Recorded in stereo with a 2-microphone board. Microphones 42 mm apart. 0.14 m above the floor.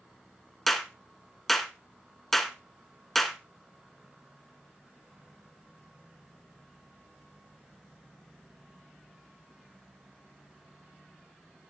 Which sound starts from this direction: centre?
A clap, at 0.7 s.